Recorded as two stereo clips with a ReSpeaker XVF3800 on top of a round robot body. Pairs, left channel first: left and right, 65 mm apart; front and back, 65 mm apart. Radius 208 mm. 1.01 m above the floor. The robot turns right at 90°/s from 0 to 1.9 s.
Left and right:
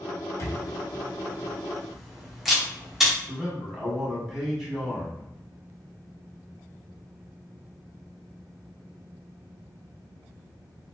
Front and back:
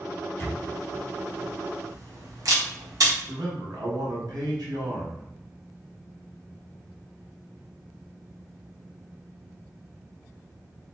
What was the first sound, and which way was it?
A camera shutter, 45° left.